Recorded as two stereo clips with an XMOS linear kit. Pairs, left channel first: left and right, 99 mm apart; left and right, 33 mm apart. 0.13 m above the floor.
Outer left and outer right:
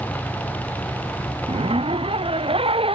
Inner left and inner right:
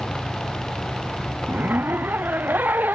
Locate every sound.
1.5 s a zipper: 70° right (ahead or behind)